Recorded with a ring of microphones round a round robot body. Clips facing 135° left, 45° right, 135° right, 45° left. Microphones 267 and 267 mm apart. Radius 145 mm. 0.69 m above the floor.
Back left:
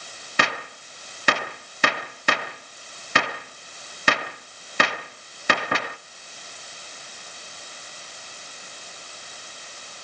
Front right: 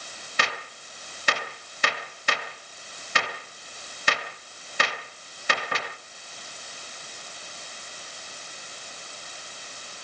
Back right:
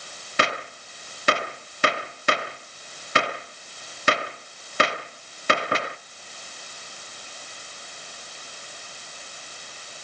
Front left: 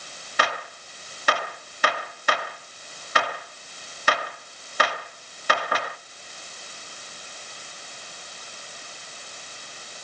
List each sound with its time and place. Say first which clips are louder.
0.4 s a gunshot: back left 6 dB, back right 3 dB; 160° left, 1.0 m